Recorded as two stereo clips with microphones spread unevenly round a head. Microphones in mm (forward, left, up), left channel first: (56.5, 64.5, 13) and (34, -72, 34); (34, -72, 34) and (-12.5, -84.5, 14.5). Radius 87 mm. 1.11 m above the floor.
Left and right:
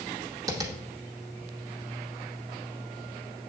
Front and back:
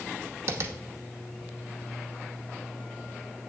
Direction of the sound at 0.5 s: 140° right.